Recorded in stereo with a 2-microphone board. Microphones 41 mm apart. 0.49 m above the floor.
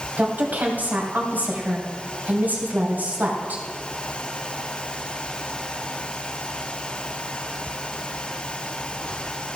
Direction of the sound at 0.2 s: 40° right (ahead or behind).